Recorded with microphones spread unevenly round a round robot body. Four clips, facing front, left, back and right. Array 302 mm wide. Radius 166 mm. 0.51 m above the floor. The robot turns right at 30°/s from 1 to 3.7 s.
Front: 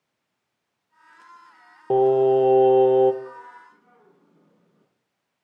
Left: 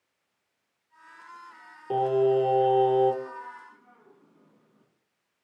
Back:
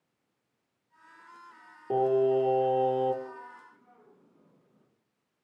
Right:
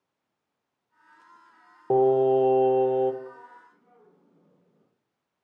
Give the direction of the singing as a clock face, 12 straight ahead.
1 o'clock.